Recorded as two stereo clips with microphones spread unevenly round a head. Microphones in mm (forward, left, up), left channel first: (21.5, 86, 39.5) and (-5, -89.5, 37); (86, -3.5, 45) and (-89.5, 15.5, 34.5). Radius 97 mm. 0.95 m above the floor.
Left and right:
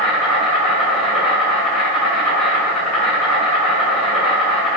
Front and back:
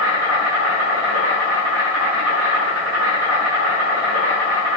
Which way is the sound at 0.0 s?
170° left.